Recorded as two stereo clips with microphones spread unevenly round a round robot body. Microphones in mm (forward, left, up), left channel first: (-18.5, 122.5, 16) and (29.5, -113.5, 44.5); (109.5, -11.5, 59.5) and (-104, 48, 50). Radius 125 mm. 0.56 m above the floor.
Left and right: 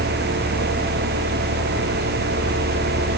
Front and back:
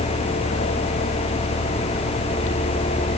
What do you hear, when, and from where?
Only background noise.